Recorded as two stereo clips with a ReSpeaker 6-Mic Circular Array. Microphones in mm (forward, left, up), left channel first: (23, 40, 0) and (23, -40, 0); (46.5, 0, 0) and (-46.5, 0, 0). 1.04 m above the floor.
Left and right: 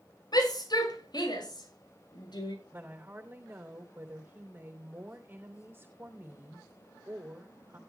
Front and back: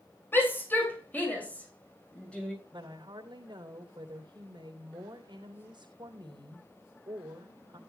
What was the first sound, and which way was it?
A shout, 65° left.